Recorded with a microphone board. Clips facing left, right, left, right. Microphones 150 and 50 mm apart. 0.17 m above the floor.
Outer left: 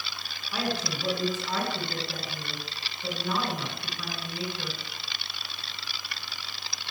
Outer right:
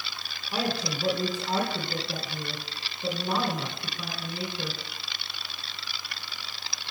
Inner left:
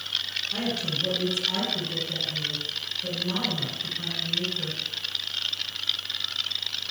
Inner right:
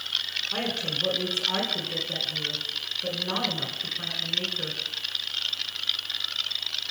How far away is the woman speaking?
About 1.7 m.